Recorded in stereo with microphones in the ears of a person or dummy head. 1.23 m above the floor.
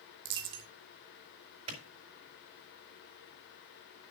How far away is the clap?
About 4 m.